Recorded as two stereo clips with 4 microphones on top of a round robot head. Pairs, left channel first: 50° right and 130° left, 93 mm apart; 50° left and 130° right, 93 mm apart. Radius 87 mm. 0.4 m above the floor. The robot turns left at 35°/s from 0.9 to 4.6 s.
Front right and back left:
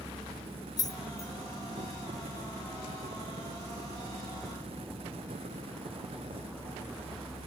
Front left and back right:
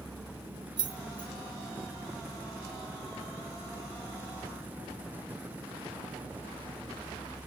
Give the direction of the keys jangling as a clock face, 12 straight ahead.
3 o'clock.